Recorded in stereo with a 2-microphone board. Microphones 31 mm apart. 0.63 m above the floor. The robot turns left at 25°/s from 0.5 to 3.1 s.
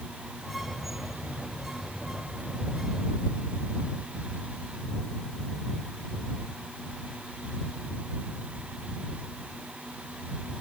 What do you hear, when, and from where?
Only background noise.